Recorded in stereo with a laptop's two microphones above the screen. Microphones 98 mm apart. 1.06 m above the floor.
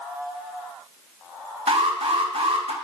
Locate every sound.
1.7 s an alarm: 90° right, 1.3 m